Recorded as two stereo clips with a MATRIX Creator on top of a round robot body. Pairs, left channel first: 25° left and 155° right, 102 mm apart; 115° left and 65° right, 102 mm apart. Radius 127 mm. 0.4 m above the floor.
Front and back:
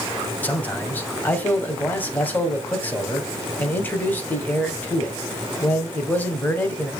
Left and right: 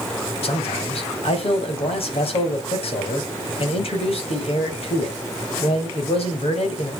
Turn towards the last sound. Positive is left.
turn(degrees=95)